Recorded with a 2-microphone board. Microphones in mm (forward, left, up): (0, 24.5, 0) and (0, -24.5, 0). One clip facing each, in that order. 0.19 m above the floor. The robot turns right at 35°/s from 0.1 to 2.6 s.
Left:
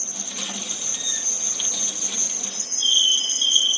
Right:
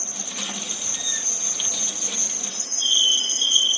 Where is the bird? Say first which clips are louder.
Left 2 dB; 80° right, 4.5 m.